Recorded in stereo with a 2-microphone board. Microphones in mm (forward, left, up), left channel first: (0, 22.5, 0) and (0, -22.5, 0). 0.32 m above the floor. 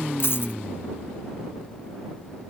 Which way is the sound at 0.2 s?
60° left (ahead or behind).